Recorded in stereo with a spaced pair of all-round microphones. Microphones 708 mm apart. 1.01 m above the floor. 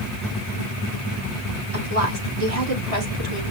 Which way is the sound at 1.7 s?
50° right (ahead or behind).